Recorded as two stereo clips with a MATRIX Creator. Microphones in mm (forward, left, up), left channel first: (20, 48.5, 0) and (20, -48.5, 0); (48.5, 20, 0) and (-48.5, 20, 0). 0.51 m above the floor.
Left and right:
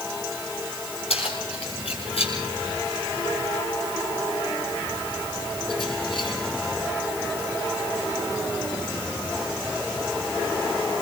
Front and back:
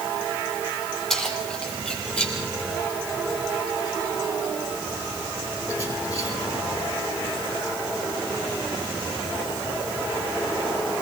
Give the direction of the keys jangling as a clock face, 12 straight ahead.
9 o'clock.